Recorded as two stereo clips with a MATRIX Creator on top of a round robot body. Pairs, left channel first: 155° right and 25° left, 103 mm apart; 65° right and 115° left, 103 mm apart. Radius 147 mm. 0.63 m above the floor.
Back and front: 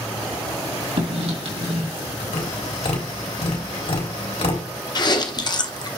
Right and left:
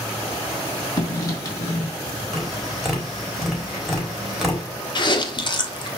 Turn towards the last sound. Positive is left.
turn(degrees=-110)